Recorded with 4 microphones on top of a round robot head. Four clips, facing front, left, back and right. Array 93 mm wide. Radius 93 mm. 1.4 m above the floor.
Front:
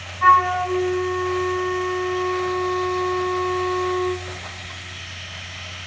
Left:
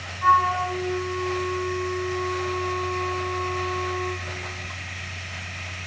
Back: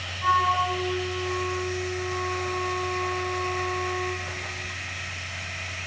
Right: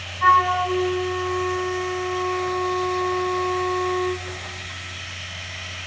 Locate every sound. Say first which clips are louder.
0.2 s a flute: right 2 dB, front 7 dB; 35° right, 0.8 m